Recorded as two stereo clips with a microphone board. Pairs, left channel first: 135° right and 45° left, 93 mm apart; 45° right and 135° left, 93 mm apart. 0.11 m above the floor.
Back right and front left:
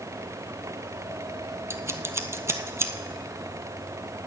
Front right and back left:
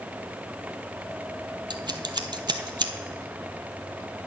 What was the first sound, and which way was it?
Scissors, 105° left.